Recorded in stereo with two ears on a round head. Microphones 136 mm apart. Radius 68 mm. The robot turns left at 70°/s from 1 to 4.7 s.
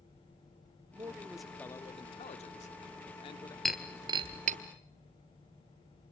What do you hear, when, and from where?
0.9 s a man speaking: 150° right, 1.2 m; by 3.5 s 30° left, 1.2 m
3.6 s breaking glass: centre (ahead or behind), 1.3 m; by 4.6 s 60° right (ahead or behind), 1.3 m